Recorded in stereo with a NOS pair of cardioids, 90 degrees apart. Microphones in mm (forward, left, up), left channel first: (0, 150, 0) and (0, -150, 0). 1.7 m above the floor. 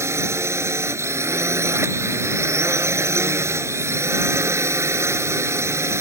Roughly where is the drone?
Ahead.